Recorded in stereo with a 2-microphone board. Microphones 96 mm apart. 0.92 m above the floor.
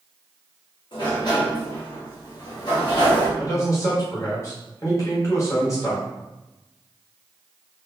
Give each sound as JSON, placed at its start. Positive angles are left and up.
{"t": 0.9, "sound": "a sliding door", "side_deg": 50, "distance_m": 1.2}
{"t": 3.4, "sound": "a man speaking", "side_deg": 35, "distance_m": 1.4}